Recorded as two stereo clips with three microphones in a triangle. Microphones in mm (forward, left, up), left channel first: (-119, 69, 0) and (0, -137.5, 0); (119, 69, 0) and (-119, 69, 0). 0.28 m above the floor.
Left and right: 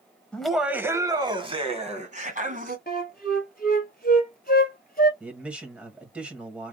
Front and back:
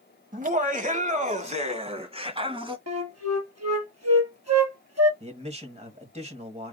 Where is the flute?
175° left, 1.6 m.